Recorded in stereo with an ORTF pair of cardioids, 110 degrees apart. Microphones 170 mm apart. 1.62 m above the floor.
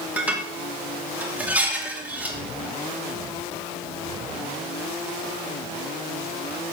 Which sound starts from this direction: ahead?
Dishes clattering, at 0.2 s.